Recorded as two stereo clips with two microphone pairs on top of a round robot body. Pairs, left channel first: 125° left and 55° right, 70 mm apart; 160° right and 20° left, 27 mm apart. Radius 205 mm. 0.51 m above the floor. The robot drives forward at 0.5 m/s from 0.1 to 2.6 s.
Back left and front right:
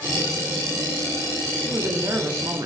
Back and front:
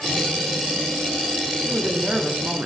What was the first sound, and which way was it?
A woman speaking, 15° right.